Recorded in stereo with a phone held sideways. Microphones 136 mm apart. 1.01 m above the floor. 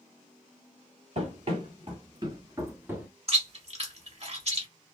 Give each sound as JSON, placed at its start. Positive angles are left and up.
{"t": 1.1, "sound": "running footsteps", "side_deg": -50, "distance_m": 1.5}
{"t": 3.3, "sound": "chewing", "side_deg": -50, "distance_m": 1.3}